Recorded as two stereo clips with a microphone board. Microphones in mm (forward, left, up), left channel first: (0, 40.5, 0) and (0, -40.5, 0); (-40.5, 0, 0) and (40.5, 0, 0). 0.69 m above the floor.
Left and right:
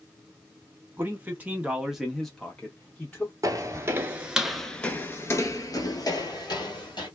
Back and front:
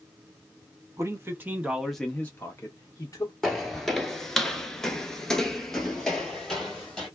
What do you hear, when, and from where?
1.0 s a man speaking: 35° right, 1.0 m; by 3.3 s 155° left, 1.2 m
3.4 s footsteps: 90° right, 0.8 m; by 7.1 s 95° left, 1.5 m